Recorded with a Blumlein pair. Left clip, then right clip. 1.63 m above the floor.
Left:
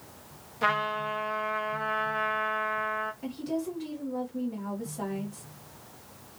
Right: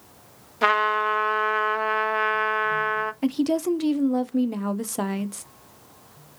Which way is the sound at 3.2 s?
55° right.